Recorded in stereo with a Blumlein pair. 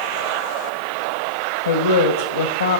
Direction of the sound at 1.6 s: 65° left.